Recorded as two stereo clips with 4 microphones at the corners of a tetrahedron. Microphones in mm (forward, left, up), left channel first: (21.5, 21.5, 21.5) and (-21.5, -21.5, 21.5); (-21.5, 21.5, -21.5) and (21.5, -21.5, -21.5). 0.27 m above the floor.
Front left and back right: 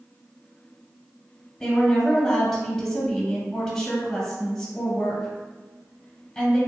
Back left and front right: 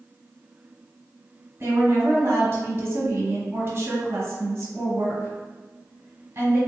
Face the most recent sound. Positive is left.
turn(degrees=-35)